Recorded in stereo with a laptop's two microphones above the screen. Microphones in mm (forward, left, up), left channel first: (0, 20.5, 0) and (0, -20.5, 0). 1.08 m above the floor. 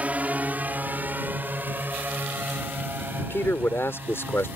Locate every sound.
0.0 s a drone: 35° right (ahead or behind); by 4.6 s 55° right (ahead or behind)
3.3 s a man speaking: 80° left